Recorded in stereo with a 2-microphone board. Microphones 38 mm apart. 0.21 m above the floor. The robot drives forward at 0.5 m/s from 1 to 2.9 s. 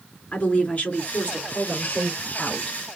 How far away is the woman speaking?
About 3.5 m.